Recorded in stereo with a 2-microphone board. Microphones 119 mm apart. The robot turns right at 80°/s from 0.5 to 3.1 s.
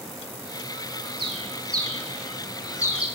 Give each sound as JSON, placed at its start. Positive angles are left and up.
{"t": 1.2, "sound": "a bird", "side_deg": -50, "distance_m": 0.5}